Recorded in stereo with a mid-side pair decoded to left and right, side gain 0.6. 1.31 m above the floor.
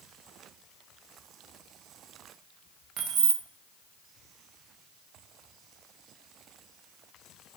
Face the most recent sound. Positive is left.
turn(degrees=-60)